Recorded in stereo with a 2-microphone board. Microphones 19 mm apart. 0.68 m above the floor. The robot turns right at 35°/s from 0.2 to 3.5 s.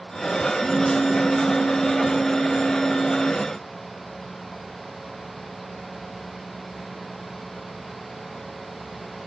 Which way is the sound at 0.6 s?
70° left.